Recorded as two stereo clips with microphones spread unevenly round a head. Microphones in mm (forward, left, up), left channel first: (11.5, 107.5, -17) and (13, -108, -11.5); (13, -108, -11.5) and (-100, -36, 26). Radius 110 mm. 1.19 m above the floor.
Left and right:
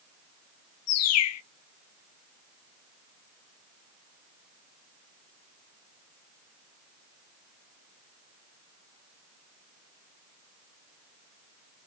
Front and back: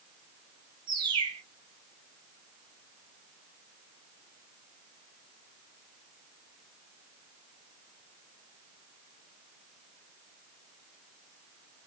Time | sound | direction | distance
0.9 | a bird | 80° left | 0.6 m